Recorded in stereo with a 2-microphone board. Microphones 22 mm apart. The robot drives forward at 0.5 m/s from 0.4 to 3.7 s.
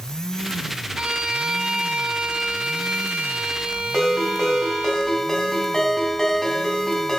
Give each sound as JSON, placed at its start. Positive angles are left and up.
{"t": 0.9, "sound": "a violin", "side_deg": -55, "distance_m": 3.0}
{"t": 3.9, "sound": "a ringtone", "side_deg": 20, "distance_m": 3.0}